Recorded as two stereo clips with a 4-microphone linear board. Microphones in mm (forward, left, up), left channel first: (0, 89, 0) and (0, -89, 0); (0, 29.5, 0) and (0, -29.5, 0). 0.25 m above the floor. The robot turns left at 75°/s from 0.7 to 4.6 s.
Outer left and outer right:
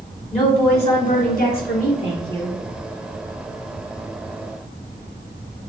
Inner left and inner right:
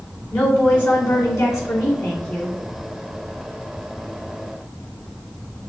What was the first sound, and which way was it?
A woman speaking, 145° left.